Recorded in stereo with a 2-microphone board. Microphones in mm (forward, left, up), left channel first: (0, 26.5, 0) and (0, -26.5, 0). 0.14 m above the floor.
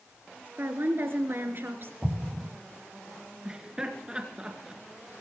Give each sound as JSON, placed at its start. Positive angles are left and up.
{"t": 0.6, "sound": "a woman speaking", "side_deg": -50, "distance_m": 2.0}
{"t": 2.0, "sound": "an explosion", "side_deg": -15, "distance_m": 2.0}
{"t": 3.5, "sound": "laughter", "side_deg": -20, "distance_m": 2.5}